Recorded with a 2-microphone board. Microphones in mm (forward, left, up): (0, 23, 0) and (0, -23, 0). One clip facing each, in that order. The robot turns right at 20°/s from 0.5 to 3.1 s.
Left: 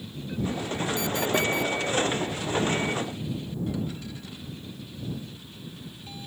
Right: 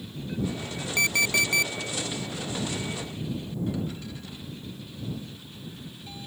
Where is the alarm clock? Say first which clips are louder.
Right 4 dB; 65° right (ahead or behind); by 1.7 s 75° right (ahead or behind).